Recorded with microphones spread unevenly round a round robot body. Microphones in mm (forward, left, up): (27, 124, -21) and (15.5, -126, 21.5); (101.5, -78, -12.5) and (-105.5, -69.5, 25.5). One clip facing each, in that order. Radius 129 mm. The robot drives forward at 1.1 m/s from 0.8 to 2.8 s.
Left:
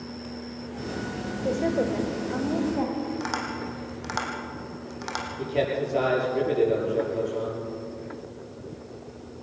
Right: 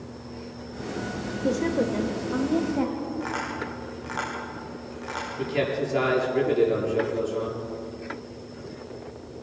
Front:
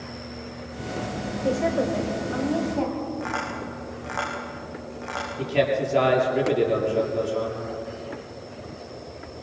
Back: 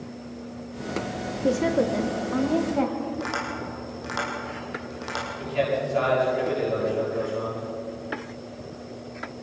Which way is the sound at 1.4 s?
150° right.